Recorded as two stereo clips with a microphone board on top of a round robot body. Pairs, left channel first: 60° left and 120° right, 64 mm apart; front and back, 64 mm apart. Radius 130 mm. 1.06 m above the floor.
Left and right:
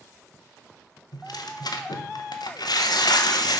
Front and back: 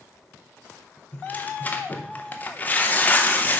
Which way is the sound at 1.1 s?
65° left.